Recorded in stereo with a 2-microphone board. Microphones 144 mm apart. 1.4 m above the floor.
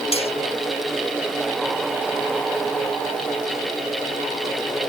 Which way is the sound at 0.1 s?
40° left (ahead or behind).